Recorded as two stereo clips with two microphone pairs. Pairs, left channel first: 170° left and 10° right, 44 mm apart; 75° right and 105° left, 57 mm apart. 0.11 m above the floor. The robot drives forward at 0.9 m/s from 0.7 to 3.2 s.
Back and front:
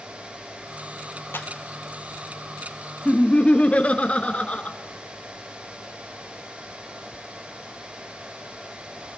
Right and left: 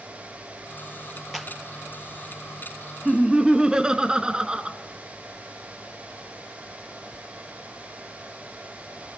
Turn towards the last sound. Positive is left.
turn(degrees=170)